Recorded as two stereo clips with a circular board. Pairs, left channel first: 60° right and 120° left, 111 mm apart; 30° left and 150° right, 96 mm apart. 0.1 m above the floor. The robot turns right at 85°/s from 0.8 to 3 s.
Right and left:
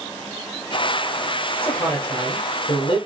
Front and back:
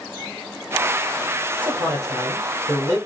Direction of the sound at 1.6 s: 135° right.